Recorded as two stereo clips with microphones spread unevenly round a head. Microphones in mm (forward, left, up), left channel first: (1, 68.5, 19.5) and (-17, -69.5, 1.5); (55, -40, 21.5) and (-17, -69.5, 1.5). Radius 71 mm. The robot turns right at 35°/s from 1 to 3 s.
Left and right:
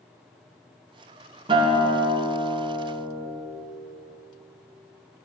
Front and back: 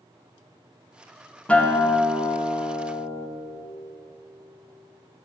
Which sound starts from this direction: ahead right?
A guitar, at 1.5 s.